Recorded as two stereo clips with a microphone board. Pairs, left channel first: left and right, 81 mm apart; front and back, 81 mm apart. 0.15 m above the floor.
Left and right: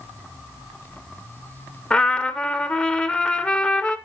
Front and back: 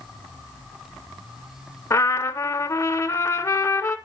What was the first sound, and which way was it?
A trumpet, 25° left.